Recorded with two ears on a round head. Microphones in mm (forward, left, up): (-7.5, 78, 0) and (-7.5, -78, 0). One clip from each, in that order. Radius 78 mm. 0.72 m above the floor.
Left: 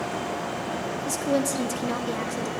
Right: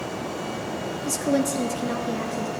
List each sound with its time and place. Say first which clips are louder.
1.1 s a woman speaking: right 2 dB; centre (ahead or behind), 0.9 m; by 2.5 s 50° left (ahead or behind), 1.4 m